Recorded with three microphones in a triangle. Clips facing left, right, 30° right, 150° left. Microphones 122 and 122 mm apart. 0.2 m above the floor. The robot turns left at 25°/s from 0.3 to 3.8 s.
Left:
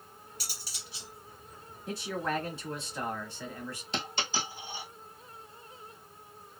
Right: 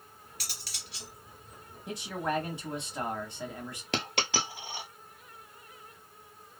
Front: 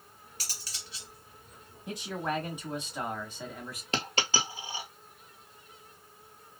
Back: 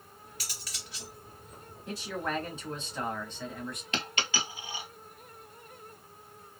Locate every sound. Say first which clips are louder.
0.4 s cutlery clinking: even, front 1 dB; 80° right, 1.8 m; by 1.1 s 100° right, 1.8 m
1.9 s a man speaking: even, front 1 dB; 60° right, 1.0 m; by 3.8 s 110° right, 1.0 m
3.9 s a dropped coin: right 3 dB, front 4 dB; 90° right, 0.9 m